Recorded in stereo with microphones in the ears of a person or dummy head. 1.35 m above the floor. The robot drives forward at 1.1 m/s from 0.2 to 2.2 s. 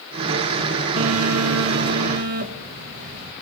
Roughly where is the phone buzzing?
Right.